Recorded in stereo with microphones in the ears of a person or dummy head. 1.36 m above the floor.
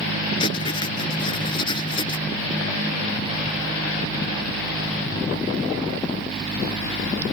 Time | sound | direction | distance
0.4 | writing | 25° left (ahead or behind) | ?